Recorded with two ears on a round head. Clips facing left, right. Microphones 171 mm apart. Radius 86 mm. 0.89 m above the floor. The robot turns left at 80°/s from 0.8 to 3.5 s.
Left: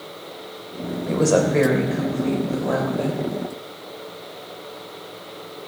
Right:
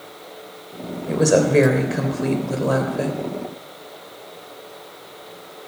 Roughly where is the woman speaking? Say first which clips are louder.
Right 2 dB; ahead.